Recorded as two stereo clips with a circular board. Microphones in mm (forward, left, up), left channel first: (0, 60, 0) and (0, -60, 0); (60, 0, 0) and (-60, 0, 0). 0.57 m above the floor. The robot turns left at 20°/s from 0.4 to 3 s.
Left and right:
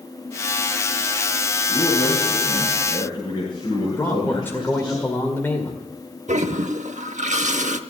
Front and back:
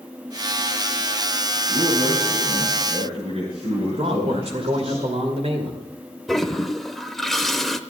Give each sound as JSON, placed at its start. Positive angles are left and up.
{"t": 1.7, "sound": "a man speaking", "azimuth_deg": 175, "distance_m": 6.5}
{"t": 4.0, "sound": "a man speaking", "azimuth_deg": 160, "distance_m": 2.0}
{"t": 6.3, "sound": "a toilet flushing", "azimuth_deg": -90, "distance_m": 0.7}